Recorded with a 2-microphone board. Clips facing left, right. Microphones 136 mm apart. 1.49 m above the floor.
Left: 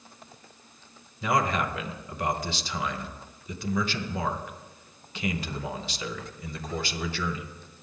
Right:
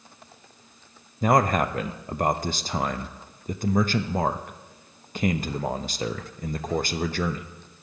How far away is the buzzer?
I don't hear a buzzer.